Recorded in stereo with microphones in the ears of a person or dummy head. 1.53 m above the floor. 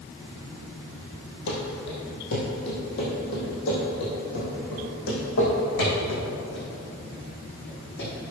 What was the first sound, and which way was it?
Running footsteps, 60° left (ahead or behind).